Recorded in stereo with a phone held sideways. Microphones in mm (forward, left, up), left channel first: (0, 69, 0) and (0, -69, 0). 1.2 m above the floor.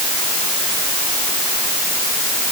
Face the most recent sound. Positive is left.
No sound to turn to.